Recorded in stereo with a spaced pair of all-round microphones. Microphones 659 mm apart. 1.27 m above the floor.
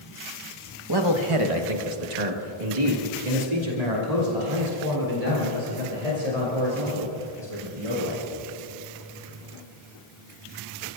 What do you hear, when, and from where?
0.9 s a man speaking: 35° right (ahead or behind), 1.5 m; by 8.2 s 55° right (ahead or behind), 7 m